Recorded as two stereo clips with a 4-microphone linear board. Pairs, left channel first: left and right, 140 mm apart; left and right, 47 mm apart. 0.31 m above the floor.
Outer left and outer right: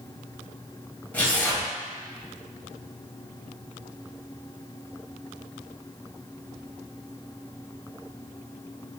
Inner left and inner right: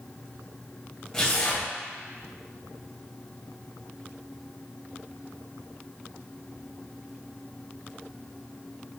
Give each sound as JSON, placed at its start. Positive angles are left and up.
{"t": 1.1, "sound": "tearing paper", "side_deg": 10, "distance_m": 1.1}